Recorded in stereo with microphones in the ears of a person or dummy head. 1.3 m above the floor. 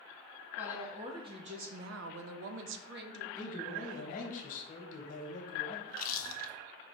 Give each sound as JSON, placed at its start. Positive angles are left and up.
{"t": 0.6, "sound": "a woman speaking", "side_deg": -5, "distance_m": 0.8}
{"t": 3.4, "sound": "a man speaking", "side_deg": 45, "distance_m": 1.0}
{"t": 5.9, "sound": "chewing", "side_deg": 50, "distance_m": 0.6}